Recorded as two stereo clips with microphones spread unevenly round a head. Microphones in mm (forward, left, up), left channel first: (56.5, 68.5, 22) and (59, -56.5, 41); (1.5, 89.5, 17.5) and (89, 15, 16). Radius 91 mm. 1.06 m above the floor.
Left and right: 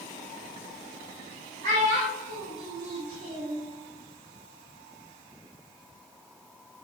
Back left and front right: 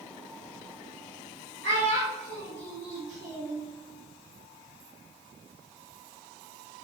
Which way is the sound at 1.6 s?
65° right.